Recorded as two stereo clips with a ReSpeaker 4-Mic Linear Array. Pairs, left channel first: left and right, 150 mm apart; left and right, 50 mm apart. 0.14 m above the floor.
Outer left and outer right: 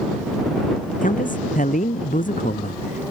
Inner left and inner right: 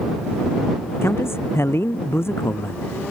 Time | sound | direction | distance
1.0 | a man speaking | 60° left (ahead or behind) | ?